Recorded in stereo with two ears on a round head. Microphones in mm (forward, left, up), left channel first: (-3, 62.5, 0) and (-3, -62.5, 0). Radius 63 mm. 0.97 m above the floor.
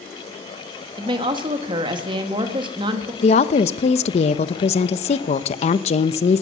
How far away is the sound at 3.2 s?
About 0.7 m.